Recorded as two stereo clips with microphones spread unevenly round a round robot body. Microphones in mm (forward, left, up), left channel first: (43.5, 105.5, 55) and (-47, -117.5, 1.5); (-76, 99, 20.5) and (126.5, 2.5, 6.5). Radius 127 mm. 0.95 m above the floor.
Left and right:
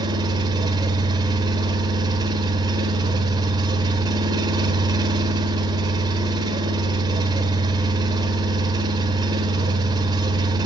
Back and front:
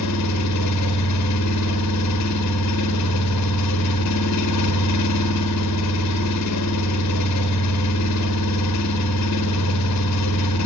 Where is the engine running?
175° left, 1.2 m.